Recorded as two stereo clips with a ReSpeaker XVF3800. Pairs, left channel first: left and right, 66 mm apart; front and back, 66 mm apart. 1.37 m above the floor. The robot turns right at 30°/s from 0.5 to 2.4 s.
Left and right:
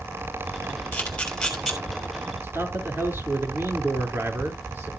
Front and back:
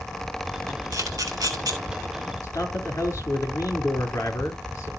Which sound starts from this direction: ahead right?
A man speaking, at 2.4 s.